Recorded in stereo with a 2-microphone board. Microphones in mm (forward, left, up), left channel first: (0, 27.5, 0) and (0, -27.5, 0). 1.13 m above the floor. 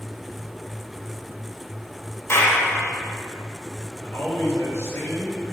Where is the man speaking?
50° left (ahead or behind), 3 m.